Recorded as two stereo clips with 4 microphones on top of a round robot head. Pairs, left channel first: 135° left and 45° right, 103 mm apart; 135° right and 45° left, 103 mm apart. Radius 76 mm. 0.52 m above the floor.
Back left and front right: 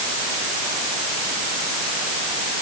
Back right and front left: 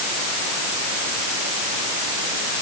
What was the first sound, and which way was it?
Only background noise.